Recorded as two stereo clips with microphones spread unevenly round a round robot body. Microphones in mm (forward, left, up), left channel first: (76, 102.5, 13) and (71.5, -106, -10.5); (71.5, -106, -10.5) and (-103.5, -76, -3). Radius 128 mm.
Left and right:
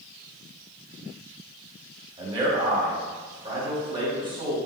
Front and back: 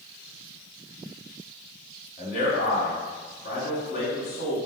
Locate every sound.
2.2 s a man speaking: 30° right, 1.6 m